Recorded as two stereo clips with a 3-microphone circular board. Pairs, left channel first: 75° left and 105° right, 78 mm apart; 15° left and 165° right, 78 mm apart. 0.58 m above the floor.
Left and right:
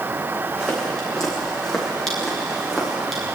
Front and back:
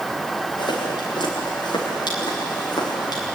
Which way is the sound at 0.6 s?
5° right.